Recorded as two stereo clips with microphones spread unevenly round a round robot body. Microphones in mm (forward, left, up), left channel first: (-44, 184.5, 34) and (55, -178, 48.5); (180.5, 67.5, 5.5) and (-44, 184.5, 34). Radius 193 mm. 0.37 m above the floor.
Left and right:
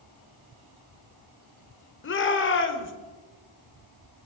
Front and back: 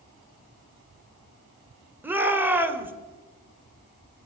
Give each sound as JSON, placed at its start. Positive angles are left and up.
{"t": 2.0, "sound": "a shout", "azimuth_deg": 65, "distance_m": 1.8}